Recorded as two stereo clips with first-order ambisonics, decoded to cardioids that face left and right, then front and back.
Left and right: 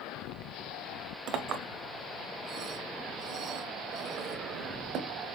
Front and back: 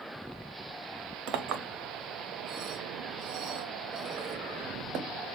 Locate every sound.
1.3 s a clink: 140° right, 0.6 m